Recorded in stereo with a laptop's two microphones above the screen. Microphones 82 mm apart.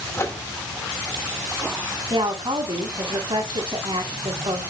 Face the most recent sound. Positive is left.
turn(degrees=-80)